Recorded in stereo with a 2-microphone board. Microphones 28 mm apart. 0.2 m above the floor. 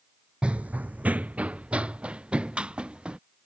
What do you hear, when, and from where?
0.4 s running footsteps: 40° right (ahead or behind)